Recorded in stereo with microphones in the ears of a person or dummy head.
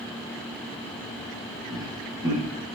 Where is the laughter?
15° right (ahead or behind), 1.2 m.